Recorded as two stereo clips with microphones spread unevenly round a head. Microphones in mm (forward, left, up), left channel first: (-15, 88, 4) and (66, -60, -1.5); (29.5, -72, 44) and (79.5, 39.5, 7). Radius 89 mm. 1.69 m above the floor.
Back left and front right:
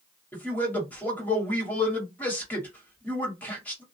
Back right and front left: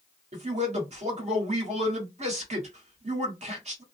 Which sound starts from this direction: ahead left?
A man speaking, at 0.3 s.